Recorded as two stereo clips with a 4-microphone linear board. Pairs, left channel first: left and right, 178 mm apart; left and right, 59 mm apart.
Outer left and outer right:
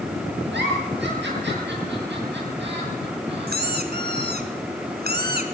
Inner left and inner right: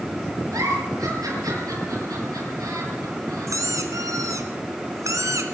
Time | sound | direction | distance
0.5 | a giggle | 80° right | 8 m
3.5 | a squeak | 65° right (ahead or behind) | 2.5 m